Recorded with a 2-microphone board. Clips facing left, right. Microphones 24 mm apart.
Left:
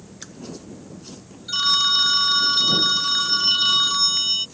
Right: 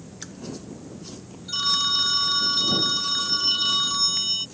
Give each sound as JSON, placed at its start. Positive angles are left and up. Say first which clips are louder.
{"t": 1.5, "sound": "a phone ringing", "louder": "left 4 dB", "side_deg": 20}